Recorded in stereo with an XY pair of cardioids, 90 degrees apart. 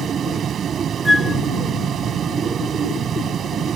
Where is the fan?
65° right.